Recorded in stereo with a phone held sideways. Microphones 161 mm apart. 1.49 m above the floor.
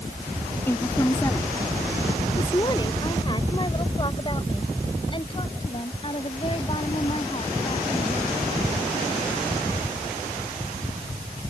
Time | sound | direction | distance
0.7 | a woman speaking | 15° left (ahead or behind) | ?